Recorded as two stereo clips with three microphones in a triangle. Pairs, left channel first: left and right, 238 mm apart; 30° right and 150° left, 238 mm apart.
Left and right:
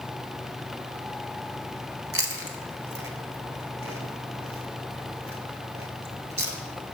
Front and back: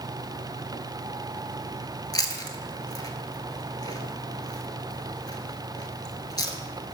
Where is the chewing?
105° right, 0.8 m.